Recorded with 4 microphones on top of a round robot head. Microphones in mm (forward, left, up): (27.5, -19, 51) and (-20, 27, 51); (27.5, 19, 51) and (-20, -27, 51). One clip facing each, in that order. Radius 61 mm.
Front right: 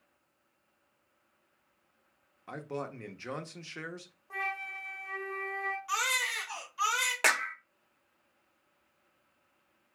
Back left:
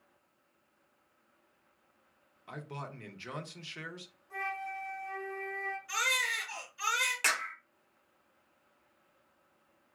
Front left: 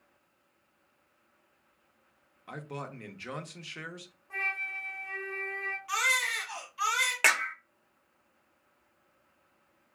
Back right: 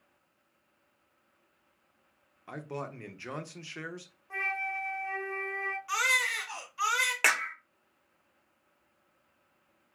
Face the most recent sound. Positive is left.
turn(degrees=-45)